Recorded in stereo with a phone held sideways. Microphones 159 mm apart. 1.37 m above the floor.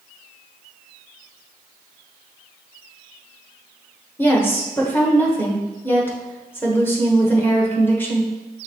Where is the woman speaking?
15° left (ahead or behind), 1.0 m.